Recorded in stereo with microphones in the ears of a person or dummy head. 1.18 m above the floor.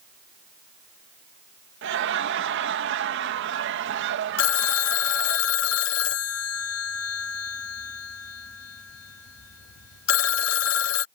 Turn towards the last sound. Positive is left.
turn(degrees=75)  # may be behind; listen again after turning